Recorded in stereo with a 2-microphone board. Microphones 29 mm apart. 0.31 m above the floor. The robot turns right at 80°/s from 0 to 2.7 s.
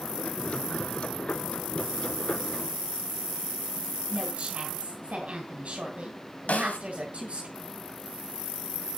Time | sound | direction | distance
4.1 | a woman speaking | 45° right (ahead or behind) | 2.5 m
6.5 | a snare drum | 60° left (ahead or behind) | 1.3 m